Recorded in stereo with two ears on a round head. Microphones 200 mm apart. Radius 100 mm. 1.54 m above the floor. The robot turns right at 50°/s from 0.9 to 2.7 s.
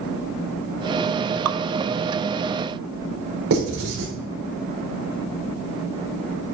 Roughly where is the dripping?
Right.